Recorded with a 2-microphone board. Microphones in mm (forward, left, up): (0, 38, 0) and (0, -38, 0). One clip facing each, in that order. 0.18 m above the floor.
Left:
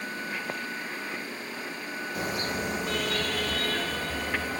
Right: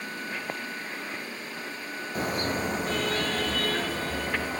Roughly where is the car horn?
Right.